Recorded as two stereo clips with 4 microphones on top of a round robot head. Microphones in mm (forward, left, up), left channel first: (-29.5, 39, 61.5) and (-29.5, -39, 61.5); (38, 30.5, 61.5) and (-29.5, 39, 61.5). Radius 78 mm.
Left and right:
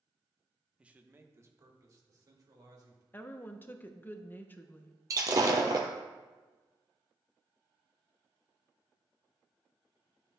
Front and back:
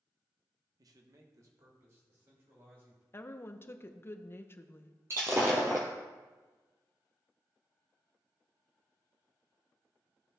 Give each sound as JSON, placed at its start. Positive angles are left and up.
{"t": 0.8, "sound": "a man speaking", "azimuth_deg": -165, "distance_m": 0.9}
{"t": 3.1, "sound": "a woman speaking", "azimuth_deg": 35, "distance_m": 0.7}
{"t": 5.1, "sound": "breaking glass", "azimuth_deg": -120, "distance_m": 0.9}